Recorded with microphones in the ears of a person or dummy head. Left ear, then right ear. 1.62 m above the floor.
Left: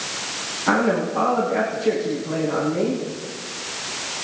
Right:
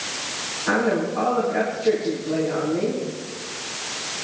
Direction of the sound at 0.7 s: 80° left.